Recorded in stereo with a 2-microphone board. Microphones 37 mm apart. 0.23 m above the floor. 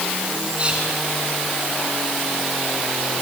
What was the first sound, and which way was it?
Whispering, 35° right (ahead or behind).